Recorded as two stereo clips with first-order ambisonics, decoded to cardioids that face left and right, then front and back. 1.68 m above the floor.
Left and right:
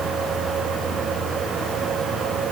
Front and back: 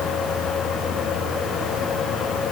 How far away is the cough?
No cough in this recording.